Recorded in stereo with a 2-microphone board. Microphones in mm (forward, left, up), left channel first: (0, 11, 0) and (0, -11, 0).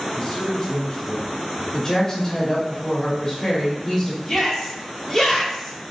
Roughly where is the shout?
Centre.